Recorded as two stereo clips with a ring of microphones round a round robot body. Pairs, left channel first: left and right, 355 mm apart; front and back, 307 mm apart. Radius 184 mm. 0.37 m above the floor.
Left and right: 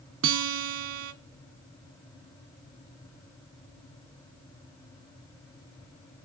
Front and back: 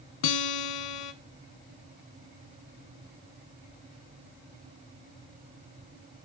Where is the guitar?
35° right, 0.5 m.